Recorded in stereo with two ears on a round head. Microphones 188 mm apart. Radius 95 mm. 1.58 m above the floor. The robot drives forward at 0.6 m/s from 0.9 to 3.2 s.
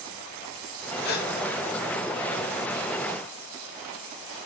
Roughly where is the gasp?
Left.